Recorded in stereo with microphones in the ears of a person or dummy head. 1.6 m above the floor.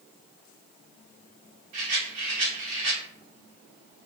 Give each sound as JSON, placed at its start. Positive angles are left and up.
{"t": 1.7, "sound": "a rattle", "side_deg": -45, "distance_m": 1.6}